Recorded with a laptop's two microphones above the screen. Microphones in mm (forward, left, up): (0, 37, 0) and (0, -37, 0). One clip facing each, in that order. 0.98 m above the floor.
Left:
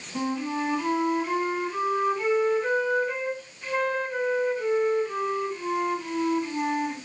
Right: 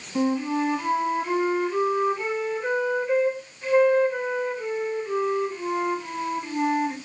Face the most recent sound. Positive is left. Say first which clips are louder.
# right 5 dB
turn(degrees=-10)  # may be behind; listen again after turning